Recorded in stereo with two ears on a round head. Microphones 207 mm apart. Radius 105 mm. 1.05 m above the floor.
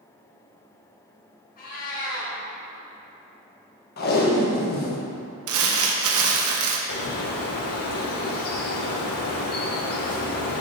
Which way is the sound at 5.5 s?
65° right (ahead or behind).